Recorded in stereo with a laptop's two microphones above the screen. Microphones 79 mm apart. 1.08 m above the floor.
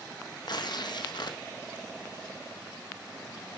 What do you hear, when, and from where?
0.5 s tearing paper: 65° left (ahead or behind), 1.4 m